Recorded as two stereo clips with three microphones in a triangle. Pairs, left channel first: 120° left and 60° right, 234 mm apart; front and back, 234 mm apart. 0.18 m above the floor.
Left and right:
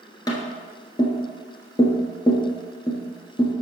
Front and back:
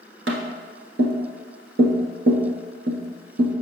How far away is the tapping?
About 1.2 m.